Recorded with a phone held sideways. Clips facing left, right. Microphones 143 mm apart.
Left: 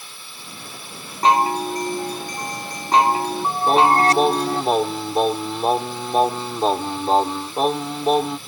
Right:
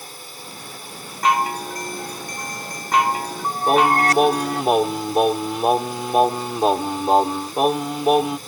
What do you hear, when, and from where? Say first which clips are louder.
0.0 s a drone: right 4 dB; 40° right (ahead or behind)
1.2 s a chime: left 3 dB; 30° left (ahead or behind)
3.7 s singing: left 1 dB; 10° right (ahead or behind)